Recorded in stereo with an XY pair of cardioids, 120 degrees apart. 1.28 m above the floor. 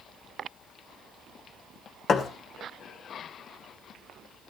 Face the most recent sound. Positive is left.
turn(degrees=45)